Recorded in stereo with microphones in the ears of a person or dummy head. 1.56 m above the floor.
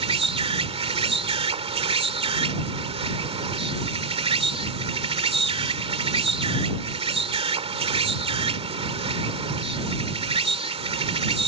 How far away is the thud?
No thud in this recording.